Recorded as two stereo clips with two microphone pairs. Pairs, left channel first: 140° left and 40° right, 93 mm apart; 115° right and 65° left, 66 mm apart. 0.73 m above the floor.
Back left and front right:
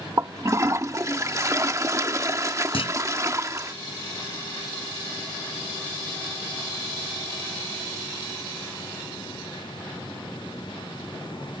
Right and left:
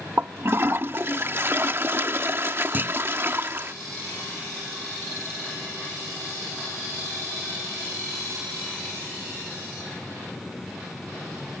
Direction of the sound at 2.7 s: 125° left.